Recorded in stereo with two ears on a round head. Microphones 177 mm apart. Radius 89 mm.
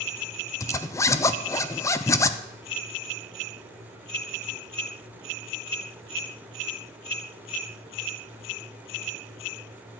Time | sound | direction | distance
0.6 | a zipper | 15° left (ahead or behind) | 0.6 m